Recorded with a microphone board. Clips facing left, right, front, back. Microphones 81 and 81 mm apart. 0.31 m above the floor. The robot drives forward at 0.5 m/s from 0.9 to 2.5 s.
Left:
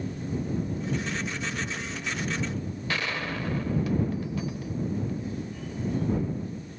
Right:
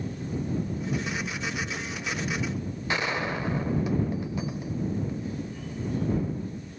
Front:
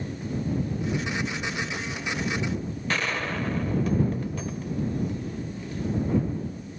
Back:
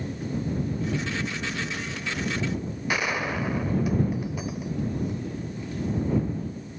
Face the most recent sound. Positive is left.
turn(degrees=-120)